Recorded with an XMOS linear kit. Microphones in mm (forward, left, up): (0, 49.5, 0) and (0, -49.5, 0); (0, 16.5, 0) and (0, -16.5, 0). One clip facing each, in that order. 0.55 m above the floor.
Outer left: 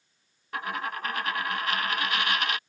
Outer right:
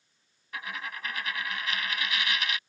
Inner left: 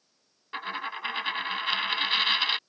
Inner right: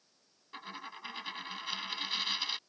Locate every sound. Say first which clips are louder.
0.5 s a dropped coin: outer left 6 dB, inner left 11 dB; 50° left (ahead or behind)